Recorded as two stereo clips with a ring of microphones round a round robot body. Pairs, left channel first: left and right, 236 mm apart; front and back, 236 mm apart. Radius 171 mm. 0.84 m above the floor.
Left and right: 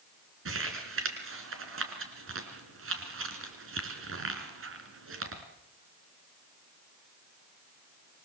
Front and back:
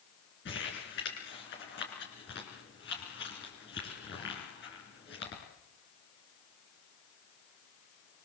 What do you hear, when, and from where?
0.5 s crumpling: 60° right, 3.5 m